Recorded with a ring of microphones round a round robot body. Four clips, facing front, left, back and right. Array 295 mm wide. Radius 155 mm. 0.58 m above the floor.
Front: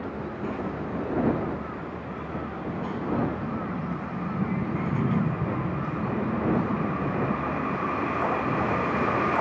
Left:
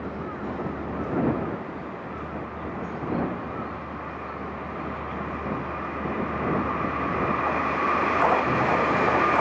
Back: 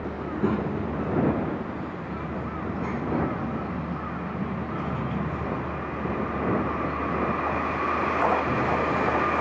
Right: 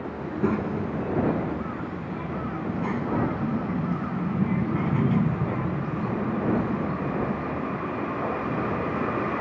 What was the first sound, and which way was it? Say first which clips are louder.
A child speaking: right 8 dB, back 8 dB; 130° right.